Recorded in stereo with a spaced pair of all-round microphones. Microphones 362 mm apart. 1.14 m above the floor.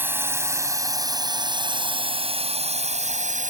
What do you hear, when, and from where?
0.0 s a drone: 5° right (ahead or behind); by 3.5 s 20° right (ahead or behind)